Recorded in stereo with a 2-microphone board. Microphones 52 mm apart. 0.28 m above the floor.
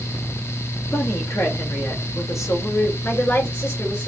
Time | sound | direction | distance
0.9 | a woman speaking | 70° left (ahead or behind) | 4 m
3.0 | a woman speaking | 55° left (ahead or behind) | 4.5 m